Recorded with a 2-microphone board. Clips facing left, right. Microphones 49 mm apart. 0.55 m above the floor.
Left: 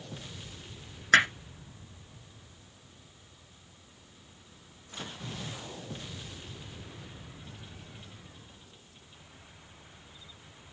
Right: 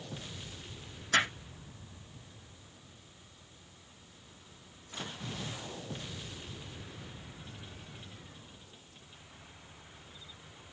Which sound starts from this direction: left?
Hammering, at 1.1 s.